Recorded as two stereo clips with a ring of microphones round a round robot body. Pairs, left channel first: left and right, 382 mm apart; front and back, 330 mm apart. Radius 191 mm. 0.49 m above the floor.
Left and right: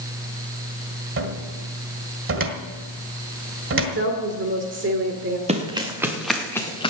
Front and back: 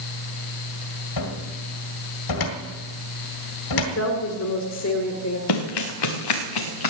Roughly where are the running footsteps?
Ahead.